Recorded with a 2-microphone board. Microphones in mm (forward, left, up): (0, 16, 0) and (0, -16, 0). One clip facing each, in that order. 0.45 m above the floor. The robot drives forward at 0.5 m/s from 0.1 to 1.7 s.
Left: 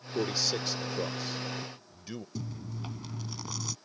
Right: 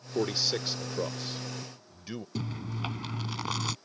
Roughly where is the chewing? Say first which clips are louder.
Right 4 dB; right.